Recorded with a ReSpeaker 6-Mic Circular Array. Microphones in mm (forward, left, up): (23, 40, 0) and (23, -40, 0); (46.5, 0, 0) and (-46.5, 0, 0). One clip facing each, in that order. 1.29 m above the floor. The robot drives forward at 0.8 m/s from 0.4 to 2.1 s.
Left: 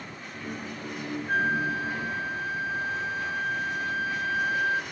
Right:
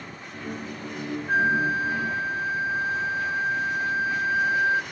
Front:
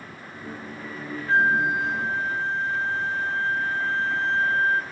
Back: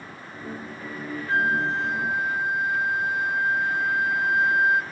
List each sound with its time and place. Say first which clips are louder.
1.3 s a flute: right 4 dB, front 3 dB; 25° right, 0.9 m; by 4.8 s 125° right, 0.8 m